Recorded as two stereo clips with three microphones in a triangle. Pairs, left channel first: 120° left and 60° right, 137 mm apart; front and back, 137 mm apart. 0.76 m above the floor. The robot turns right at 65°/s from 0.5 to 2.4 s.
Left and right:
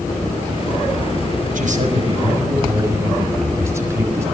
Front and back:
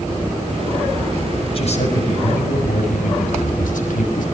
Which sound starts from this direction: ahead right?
A man speaking, at 1.6 s.